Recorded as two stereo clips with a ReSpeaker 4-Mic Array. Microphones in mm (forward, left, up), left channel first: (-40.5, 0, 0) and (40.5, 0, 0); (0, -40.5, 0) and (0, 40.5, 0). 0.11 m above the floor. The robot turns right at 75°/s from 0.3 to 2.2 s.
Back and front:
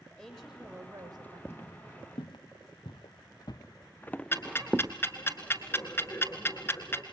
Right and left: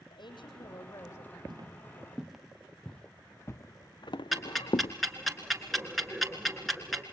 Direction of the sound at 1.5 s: 115° left.